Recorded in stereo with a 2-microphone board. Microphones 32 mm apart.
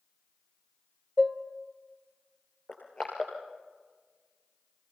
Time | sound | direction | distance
1.2 | dishes clattering | 5° left (ahead or behind) | 1.2 m
2.7 | crushing | 30° left (ahead or behind) | 6 m